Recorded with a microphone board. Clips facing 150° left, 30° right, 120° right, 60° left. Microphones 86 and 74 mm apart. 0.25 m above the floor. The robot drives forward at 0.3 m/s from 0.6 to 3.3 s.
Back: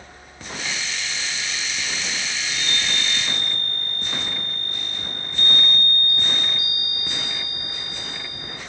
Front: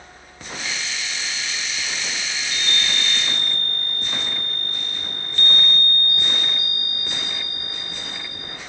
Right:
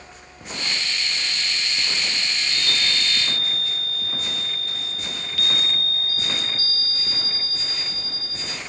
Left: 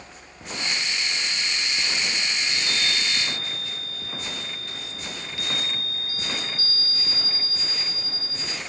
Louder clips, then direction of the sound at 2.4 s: Front 2 dB, right 1 dB; 5° right.